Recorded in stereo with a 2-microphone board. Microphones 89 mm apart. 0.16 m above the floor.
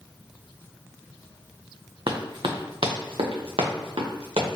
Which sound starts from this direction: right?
Running footsteps, at 2.1 s.